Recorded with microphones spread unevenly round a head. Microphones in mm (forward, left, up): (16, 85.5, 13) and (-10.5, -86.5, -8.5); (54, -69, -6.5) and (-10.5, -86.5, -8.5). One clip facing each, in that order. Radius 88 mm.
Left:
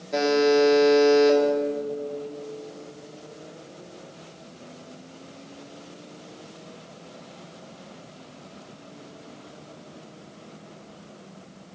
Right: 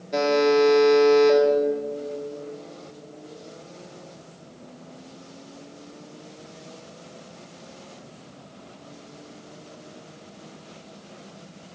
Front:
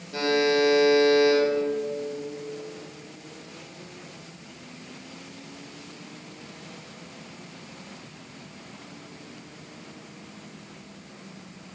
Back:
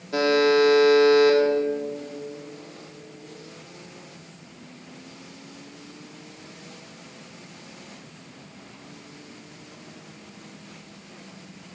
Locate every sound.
0.1 s a buzzer: 170° left, 2.5 m